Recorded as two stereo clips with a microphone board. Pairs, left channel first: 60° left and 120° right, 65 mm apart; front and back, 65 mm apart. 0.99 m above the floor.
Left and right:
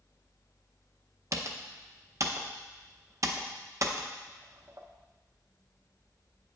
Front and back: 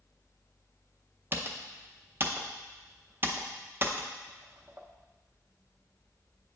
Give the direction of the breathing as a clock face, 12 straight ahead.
I don't hear breathing.